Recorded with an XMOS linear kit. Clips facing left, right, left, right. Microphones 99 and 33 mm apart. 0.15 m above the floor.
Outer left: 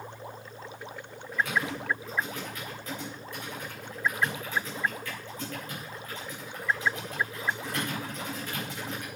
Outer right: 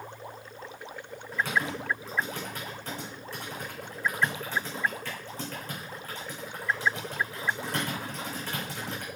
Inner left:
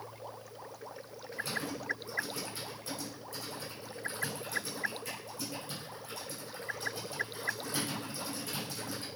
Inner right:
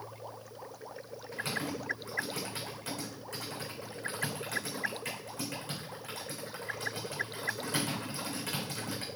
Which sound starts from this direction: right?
Typing on a keyboard, at 1.3 s.